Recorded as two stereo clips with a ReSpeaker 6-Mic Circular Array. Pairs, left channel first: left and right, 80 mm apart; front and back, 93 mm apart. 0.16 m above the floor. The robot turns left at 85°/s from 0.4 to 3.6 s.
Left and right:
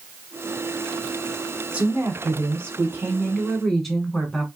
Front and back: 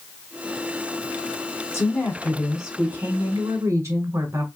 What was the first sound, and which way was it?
A woman speaking, 30° right.